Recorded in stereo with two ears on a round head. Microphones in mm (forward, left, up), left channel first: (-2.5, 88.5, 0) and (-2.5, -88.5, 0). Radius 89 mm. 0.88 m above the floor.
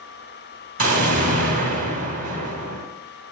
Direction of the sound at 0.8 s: 45° right (ahead or behind).